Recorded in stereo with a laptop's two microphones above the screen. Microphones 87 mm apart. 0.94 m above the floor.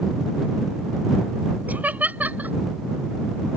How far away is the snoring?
No snoring in this recording.